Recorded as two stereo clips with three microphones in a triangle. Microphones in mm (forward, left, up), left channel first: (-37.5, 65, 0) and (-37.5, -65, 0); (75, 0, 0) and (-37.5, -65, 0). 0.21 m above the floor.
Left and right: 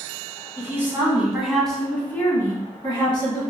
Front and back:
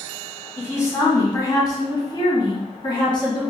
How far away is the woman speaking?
About 1.4 m.